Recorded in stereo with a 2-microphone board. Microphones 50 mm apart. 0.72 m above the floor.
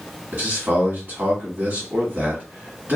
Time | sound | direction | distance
0.3 | a man speaking | 40° right (ahead or behind) | 1.7 m